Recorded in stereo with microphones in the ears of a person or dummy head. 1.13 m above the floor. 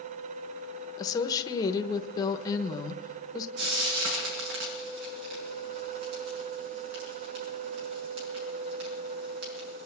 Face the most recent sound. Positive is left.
turn(degrees=-60)  # may be behind; listen again after turning